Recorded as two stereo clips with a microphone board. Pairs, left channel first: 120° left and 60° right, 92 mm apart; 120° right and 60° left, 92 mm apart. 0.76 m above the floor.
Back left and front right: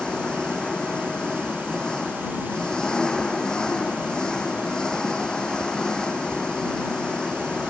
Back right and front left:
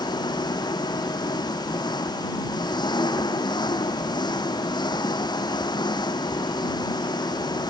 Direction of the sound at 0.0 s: 160° right.